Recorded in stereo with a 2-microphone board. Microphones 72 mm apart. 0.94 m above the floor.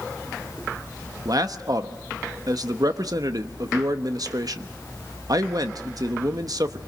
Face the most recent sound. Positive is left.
turn(degrees=-60)  # may be behind; listen again after turning